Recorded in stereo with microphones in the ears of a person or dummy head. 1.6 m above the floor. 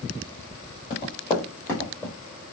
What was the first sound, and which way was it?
Running footsteps, 25° left (ahead or behind).